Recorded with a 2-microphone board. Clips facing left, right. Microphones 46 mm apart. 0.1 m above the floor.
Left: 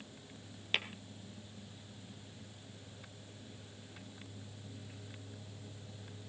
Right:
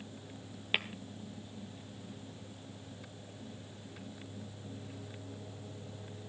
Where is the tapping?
15° right (ahead or behind), 0.9 m.